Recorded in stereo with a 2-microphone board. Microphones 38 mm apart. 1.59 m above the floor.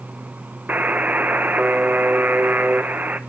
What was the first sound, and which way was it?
A buzzer, 45° right (ahead or behind).